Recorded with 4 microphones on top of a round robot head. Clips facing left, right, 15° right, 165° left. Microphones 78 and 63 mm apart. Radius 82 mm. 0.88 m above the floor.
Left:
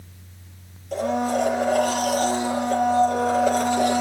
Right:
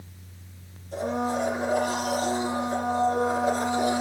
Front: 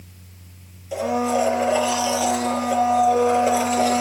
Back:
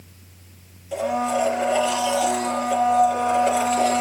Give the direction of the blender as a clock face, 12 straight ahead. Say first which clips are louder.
Left 5 dB, front 1 dB; 10 o'clock.